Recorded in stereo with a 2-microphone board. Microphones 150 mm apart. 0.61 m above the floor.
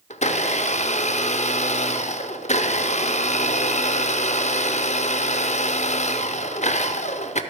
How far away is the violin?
I don't hear a violin.